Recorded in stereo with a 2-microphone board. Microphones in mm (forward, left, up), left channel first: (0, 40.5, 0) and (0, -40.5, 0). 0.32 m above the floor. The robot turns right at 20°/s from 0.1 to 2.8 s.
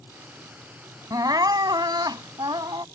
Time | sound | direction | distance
1.1 | crying | 115° right | ?